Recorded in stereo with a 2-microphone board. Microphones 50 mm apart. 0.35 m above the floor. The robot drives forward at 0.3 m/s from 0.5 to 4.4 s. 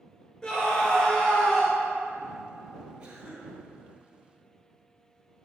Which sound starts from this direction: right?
A cough, at 3.0 s.